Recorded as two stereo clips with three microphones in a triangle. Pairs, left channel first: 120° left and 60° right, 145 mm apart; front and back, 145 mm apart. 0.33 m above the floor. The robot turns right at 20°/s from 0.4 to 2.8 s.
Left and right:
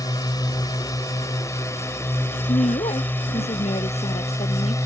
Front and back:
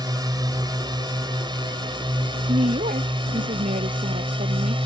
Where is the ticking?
I don't hear ticking.